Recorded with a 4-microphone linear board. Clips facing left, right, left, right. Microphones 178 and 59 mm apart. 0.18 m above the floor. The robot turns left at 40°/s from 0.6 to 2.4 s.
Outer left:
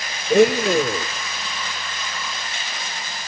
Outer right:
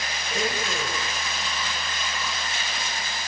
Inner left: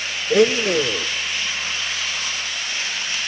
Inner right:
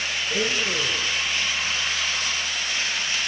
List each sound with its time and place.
0.3 s a blender: 70° left (ahead or behind), 0.9 m; by 1.1 s 50° left (ahead or behind), 0.9 m